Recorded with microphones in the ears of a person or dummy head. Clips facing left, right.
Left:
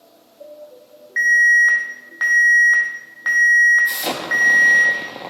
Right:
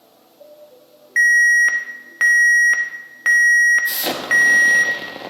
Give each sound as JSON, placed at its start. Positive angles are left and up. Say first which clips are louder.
{"t": 1.2, "sound": "an alarm", "louder": "even", "side_deg": -40, "distance_m": 0.9}
{"t": 3.9, "sound": "an explosion", "louder": "right 3 dB", "side_deg": -5, "distance_m": 1.0}